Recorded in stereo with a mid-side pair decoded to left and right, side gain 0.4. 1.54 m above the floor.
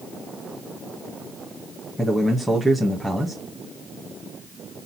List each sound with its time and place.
2.0 s a man speaking: straight ahead, 1.8 m